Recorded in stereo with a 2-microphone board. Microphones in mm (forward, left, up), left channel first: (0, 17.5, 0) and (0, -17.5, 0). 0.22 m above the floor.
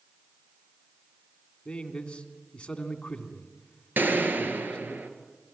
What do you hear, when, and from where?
1.6 s a man speaking: 25° left (ahead or behind), 2.5 m
4.0 s a gunshot: 65° right (ahead or behind), 2 m